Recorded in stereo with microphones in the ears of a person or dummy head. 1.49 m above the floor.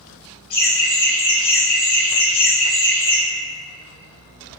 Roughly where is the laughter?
Left.